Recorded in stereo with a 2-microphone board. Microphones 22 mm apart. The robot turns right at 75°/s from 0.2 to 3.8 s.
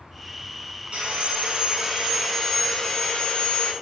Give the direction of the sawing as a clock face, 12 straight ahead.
4 o'clock.